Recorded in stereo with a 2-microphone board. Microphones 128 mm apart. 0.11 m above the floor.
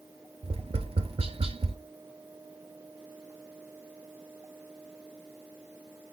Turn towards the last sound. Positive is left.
turn(degrees=-50)  # may be behind; listen again after turning